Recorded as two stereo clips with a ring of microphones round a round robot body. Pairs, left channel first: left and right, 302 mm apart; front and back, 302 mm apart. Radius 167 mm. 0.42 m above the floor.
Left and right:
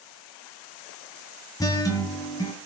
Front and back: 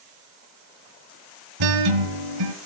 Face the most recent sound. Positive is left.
turn(degrees=170)